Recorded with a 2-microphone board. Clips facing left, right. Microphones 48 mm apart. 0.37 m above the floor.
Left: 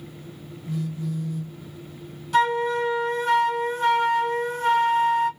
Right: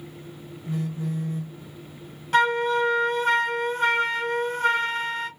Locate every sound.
0.7 s a phone buzzing: 30° right (ahead or behind), 0.6 m
2.3 s a flute: 50° right (ahead or behind), 0.9 m